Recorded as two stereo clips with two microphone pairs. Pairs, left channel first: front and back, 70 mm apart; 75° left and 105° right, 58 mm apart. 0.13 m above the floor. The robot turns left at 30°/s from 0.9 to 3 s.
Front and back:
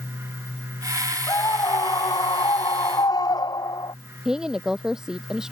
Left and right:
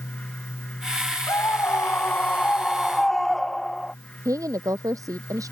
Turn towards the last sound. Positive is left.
turn(degrees=-100)